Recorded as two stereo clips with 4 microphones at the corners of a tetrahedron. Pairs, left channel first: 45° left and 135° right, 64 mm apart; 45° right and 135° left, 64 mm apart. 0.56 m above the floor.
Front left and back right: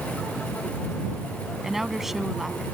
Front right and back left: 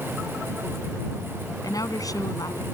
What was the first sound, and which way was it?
A woman speaking, 50° right.